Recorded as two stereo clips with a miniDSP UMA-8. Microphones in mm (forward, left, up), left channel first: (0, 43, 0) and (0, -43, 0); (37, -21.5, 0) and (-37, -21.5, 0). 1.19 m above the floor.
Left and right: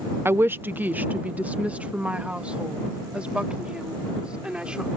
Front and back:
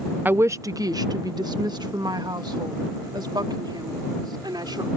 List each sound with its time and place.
0.2 s a woman speaking: 130° right; by 4.9 s 170° right